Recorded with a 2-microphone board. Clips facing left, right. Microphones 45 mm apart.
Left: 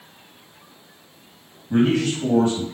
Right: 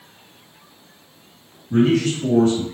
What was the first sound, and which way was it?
A man speaking, 35° left (ahead or behind).